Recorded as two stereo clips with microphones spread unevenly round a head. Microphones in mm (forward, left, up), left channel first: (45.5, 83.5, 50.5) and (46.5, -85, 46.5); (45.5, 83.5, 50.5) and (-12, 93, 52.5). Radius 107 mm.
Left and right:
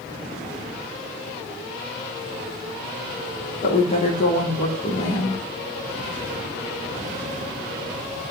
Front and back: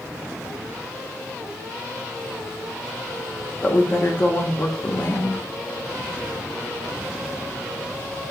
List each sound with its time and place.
3.6 s a woman speaking: 45° left, 0.9 m